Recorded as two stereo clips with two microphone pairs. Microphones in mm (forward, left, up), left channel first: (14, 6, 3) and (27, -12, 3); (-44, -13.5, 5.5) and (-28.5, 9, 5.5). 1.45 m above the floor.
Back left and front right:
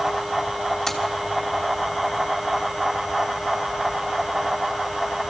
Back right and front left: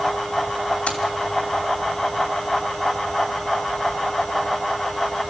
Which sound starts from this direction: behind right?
Keys jangling, at 0.9 s.